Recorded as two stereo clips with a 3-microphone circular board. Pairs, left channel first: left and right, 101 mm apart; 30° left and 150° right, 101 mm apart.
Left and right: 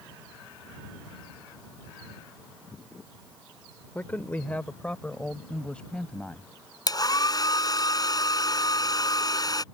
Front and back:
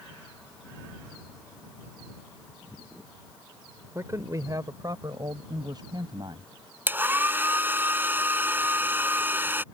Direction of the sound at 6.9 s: 140° left.